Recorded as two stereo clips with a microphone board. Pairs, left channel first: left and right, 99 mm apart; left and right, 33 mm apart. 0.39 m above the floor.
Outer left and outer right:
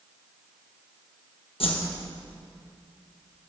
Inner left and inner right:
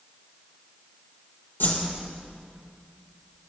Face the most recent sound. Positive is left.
turn(degrees=70)  # may be behind; listen again after turning